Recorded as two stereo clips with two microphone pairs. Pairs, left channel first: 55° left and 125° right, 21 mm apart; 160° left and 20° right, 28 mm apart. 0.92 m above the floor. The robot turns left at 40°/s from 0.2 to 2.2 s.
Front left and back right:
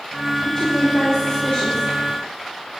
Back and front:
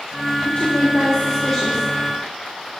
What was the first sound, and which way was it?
A woman speaking, 105° left.